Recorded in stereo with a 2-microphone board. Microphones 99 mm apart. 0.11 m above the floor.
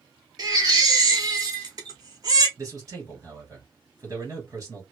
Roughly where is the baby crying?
Right.